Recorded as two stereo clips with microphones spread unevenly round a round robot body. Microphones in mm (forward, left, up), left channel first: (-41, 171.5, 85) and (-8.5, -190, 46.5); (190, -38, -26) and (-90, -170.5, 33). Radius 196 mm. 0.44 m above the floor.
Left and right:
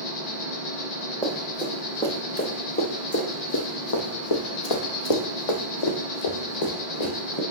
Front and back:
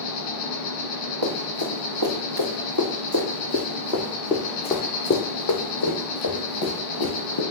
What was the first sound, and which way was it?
An insect, 70° left.